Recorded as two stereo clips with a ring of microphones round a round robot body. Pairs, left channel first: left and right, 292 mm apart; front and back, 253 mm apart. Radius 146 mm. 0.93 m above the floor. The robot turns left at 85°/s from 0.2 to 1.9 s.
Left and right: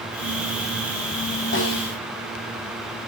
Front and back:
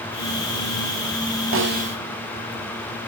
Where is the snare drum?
145° left, 1.8 m; by 2.0 s 115° left, 1.8 m.